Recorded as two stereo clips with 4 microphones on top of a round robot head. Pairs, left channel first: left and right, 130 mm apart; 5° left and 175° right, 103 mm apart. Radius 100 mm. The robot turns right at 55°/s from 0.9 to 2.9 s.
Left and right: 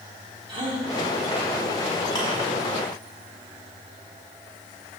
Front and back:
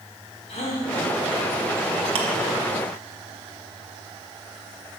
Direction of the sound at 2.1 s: 160° left.